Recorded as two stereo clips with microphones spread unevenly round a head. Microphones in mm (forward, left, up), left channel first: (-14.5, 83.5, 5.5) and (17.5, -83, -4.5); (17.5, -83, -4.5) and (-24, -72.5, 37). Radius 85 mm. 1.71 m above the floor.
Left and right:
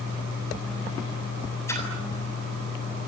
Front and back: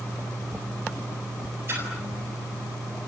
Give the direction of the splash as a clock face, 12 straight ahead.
6 o'clock.